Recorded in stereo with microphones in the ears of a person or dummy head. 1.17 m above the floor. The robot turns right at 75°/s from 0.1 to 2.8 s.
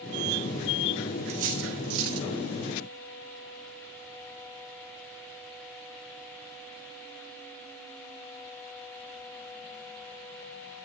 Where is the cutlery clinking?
30° right (ahead or behind), 1.2 m; by 2.3 s 70° right (ahead or behind), 1.2 m.